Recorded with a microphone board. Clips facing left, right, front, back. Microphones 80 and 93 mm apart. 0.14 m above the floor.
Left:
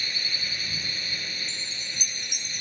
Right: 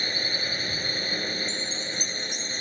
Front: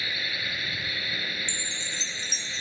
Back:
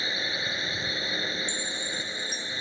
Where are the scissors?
No scissors in this recording.